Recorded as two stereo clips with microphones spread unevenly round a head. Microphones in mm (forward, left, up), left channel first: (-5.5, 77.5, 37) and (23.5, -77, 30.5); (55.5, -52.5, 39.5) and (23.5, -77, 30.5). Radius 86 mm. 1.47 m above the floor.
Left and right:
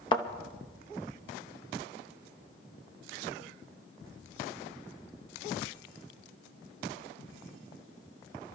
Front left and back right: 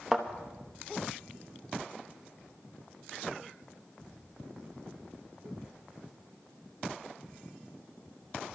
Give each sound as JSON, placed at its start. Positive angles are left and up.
{"t": 0.1, "sound": "a thud", "azimuth_deg": 120, "distance_m": 0.8}